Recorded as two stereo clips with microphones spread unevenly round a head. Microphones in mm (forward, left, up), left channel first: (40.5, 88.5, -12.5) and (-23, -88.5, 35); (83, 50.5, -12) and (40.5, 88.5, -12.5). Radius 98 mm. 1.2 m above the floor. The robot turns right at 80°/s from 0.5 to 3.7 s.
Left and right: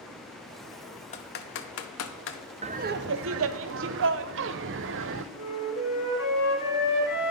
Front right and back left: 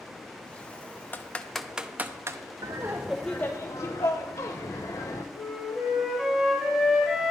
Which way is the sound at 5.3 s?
60° left.